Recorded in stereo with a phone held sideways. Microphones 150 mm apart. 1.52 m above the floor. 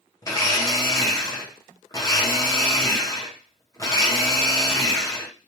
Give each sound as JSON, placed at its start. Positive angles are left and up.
{"t": 0.2, "sound": "a blender", "side_deg": 25, "distance_m": 0.7}